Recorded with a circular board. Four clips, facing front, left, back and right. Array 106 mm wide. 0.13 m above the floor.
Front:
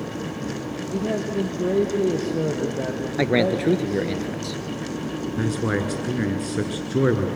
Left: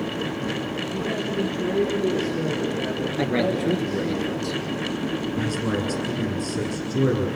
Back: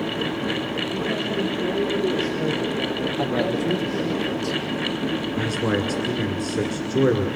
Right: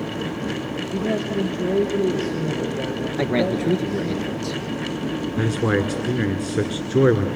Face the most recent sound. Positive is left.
turn(degrees=-75)